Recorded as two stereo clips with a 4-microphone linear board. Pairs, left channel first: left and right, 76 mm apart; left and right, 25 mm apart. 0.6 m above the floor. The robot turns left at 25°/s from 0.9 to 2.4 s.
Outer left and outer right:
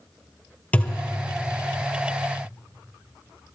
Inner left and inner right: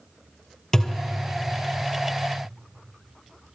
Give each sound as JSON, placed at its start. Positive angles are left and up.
{"t": 0.7, "sound": "a thud", "side_deg": 20, "distance_m": 1.5}